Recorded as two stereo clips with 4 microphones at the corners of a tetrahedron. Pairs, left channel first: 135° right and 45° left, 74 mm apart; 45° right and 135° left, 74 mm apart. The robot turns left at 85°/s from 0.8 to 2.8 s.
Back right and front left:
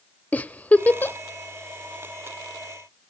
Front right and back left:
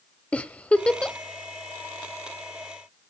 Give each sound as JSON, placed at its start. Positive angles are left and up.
{"t": 0.3, "sound": "a giggle", "azimuth_deg": -90, "distance_m": 0.7}